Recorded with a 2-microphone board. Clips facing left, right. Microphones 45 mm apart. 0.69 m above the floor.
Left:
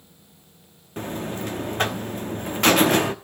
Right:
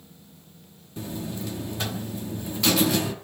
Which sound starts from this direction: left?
A buzzer, at 1.0 s.